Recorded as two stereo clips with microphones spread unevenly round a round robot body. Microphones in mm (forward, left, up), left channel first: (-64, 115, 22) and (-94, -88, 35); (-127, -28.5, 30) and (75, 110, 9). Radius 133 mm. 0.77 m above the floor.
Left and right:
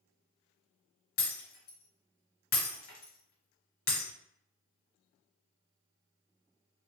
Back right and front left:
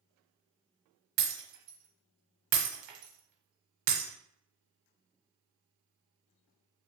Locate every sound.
1.2 s breaking glass: 45° left, 1.1 m